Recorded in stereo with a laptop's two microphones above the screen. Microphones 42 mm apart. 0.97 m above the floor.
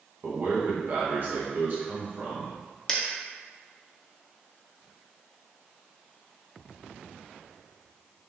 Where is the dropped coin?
15° left (ahead or behind), 0.6 m.